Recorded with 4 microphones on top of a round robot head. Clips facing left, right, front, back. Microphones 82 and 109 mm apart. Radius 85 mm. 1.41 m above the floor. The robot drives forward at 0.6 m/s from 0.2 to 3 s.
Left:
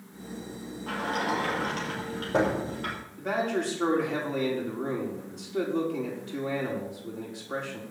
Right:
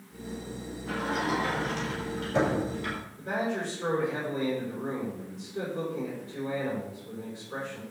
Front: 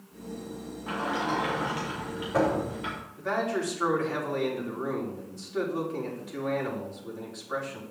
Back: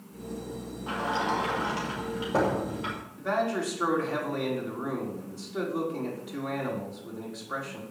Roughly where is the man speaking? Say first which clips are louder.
Left 3 dB, back 1 dB; left.